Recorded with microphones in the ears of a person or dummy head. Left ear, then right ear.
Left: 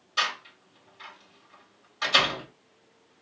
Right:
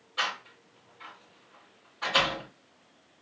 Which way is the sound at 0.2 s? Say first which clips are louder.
Left 3 dB; 70° left (ahead or behind).